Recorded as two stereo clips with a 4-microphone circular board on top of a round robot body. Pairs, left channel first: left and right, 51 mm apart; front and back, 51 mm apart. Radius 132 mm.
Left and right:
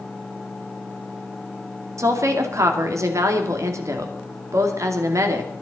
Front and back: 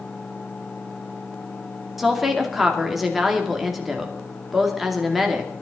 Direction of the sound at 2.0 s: 90° right.